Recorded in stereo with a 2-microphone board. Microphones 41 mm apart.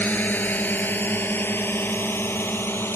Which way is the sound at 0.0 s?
45° left (ahead or behind).